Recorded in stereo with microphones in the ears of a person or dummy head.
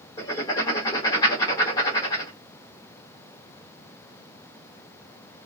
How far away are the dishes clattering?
I don't hear dishes clattering.